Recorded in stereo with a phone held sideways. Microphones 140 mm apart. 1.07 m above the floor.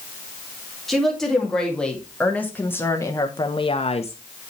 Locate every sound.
0.9 s a woman speaking: centre (ahead or behind), 2.5 m; by 4.2 s 50° left (ahead or behind), 0.7 m